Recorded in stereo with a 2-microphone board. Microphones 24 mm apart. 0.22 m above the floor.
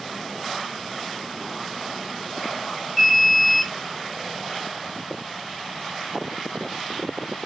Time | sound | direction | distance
3.0 | an alarm | centre (ahead or behind) | 1.6 m